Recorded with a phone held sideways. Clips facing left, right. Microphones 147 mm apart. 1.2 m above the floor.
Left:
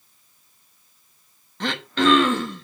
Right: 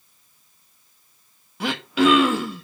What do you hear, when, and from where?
1.6 s throat clearing: 10° right (ahead or behind), 0.8 m